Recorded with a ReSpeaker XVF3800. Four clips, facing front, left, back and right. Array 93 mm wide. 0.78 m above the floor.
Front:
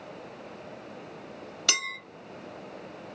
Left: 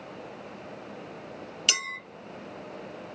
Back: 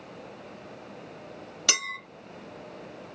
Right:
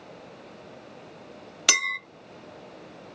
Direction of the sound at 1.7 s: 95° right.